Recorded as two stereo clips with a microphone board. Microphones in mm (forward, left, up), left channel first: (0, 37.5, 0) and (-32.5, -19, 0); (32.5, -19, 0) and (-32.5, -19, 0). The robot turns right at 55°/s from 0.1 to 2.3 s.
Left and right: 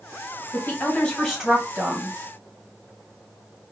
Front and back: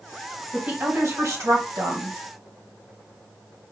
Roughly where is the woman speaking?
Left.